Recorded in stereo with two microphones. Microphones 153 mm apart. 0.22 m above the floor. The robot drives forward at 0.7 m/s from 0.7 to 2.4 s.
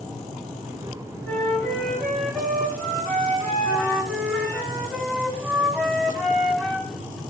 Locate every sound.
1.2 s a flute: 10° left (ahead or behind), 0.9 m; by 4.6 s 5° left (ahead or behind), 1.5 m
3.6 s a flute: 5° left (ahead or behind), 0.6 m